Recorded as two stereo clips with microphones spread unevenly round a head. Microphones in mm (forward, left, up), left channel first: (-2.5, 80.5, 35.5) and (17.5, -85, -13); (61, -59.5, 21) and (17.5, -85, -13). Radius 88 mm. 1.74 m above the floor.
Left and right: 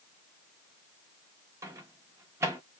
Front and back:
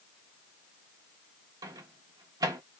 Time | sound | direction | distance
1.6 | a microwave | 170° right | 0.9 m